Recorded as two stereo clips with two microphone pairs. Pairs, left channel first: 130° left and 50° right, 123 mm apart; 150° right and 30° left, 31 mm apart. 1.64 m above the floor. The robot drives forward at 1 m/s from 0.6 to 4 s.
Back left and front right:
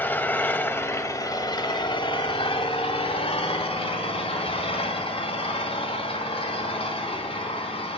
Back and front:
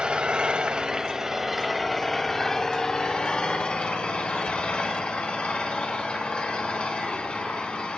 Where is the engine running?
65° left, 1.9 m; by 8.0 s 155° left, 3.5 m.